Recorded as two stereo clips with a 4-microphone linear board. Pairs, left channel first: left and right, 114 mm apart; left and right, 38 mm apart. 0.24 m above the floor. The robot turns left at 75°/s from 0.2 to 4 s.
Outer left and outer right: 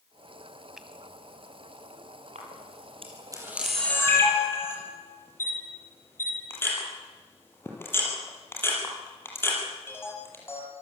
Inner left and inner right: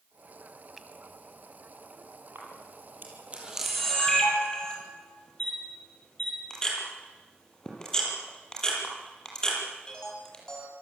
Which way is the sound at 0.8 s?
5° right (ahead or behind).